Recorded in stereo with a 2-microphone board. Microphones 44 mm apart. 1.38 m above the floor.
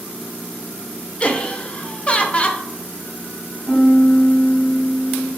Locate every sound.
1.2 s laughter: 30° left (ahead or behind), 0.5 m
3.7 s a piano: 25° left (ahead or behind), 1.4 m